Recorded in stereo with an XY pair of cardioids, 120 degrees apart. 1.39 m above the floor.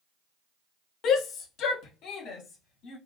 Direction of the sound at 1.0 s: 65° left.